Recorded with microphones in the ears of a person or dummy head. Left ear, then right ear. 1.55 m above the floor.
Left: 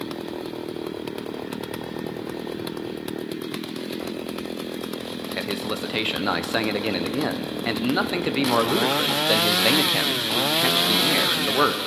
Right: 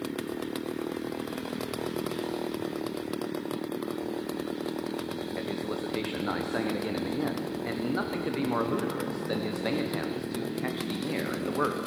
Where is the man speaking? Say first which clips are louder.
Left 8 dB; 80° left, 0.9 m.